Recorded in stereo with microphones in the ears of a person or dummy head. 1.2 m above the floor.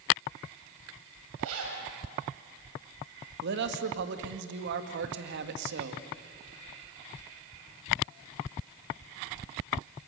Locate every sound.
1.4 s a zipper: 80° right, 6.5 m
3.4 s a man speaking: 55° right (ahead or behind), 1.9 m